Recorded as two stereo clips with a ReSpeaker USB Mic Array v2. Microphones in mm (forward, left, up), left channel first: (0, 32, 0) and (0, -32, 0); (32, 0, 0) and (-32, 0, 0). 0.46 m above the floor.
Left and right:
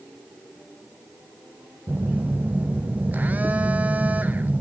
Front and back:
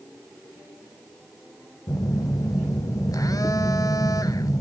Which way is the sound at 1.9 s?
25° right.